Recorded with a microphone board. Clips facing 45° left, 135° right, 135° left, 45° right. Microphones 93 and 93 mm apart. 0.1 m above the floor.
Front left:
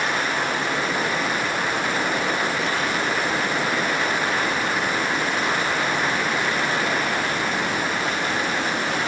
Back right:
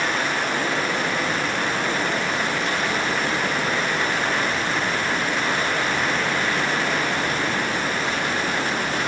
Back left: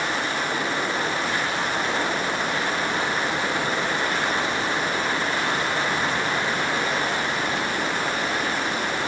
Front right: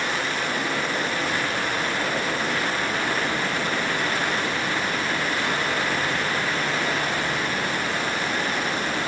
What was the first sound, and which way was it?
Only background noise.